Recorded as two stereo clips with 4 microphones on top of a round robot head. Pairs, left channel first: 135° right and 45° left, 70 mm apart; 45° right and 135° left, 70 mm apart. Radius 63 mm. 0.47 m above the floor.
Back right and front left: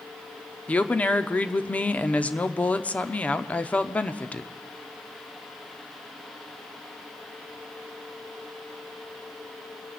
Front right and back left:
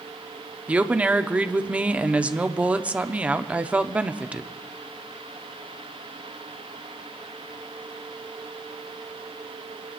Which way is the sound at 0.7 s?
Straight behind.